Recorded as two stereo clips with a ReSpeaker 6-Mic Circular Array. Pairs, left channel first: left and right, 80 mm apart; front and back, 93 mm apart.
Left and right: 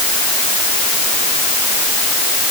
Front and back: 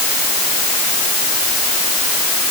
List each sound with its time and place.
Only background noise.